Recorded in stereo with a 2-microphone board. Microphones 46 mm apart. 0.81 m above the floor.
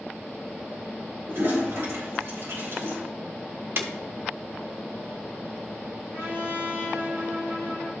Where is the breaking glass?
55° right (ahead or behind), 1.1 m.